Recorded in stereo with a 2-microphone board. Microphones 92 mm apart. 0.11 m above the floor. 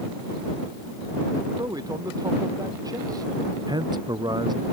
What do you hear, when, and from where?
1.6 s a man speaking: 40° right (ahead or behind)
3.7 s a man speaking: 50° right (ahead or behind)